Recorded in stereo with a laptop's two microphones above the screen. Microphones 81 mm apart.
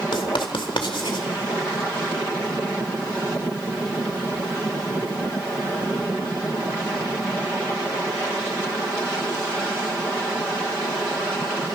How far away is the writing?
About 1.9 m.